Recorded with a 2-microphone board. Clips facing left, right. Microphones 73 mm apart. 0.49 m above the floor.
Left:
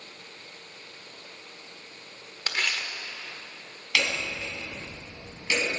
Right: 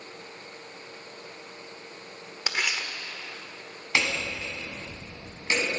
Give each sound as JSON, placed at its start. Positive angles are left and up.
{"t": 2.5, "sound": "tearing paper", "side_deg": -10, "distance_m": 1.2}
{"t": 4.0, "sound": "hammering", "side_deg": -30, "distance_m": 2.5}